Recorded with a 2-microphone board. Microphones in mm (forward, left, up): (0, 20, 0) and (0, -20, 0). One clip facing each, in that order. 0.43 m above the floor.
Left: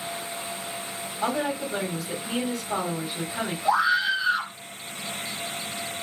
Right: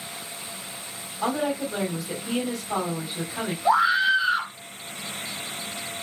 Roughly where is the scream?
Right.